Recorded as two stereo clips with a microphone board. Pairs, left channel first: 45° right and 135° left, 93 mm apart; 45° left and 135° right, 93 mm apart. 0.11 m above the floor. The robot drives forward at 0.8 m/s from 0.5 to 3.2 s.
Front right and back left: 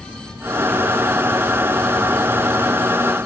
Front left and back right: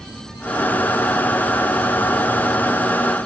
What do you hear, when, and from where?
Only background noise.